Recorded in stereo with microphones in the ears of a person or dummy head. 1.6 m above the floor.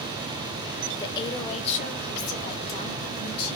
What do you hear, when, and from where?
1.0 s a woman speaking: 20° left (ahead or behind), 1.0 m; by 3.6 s 55° left (ahead or behind), 2 m